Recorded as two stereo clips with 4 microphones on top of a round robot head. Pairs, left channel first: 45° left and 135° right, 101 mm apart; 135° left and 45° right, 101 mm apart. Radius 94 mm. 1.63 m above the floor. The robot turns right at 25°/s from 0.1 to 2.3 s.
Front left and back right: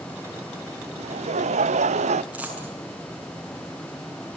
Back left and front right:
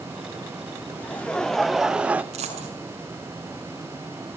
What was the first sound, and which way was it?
Laughter, 150° right.